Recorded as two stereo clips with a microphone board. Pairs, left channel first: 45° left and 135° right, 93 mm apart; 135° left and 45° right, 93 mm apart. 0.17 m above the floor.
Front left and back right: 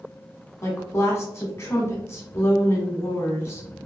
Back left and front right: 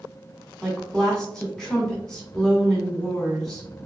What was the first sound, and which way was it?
A woman speaking, 55° left.